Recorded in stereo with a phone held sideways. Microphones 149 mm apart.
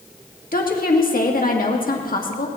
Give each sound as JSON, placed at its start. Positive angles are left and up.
{"t": 0.5, "sound": "a woman speaking", "side_deg": 75, "distance_m": 1.6}